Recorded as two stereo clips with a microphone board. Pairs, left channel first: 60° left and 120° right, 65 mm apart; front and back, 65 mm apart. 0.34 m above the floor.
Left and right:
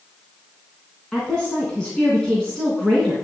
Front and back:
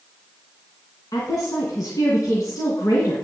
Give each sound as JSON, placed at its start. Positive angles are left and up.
{"t": 1.1, "sound": "a woman speaking", "azimuth_deg": -15, "distance_m": 3.0}